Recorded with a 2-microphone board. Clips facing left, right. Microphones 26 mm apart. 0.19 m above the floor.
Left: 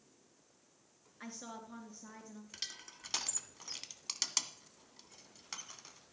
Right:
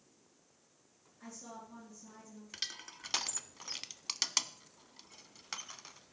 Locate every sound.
1.2 s a woman speaking: 60° left (ahead or behind), 3 m
2.5 s crushing: 20° right (ahead or behind), 0.5 m